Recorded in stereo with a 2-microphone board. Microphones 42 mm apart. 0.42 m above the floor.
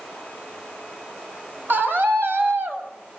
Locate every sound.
1.7 s a scream: 55° right (ahead or behind), 3.5 m; by 2.9 s 65° right (ahead or behind), 3 m